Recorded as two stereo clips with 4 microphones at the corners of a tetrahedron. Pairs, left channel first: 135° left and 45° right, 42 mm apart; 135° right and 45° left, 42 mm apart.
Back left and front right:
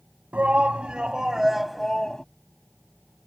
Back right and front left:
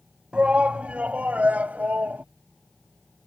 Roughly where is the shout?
Ahead.